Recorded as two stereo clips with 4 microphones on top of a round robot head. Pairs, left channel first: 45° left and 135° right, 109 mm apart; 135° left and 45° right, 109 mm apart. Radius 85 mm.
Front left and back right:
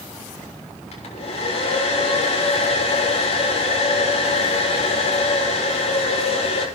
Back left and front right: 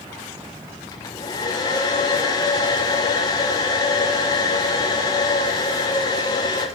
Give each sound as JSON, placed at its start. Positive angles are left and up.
{"t": 0.9, "sound": "a hair dryer", "azimuth_deg": 75, "distance_m": 6.5}